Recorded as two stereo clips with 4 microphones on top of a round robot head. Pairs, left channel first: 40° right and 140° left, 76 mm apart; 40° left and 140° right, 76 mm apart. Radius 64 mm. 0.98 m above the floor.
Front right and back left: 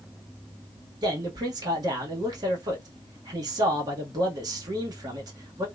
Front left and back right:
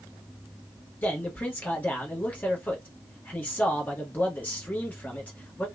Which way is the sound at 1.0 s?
110° left.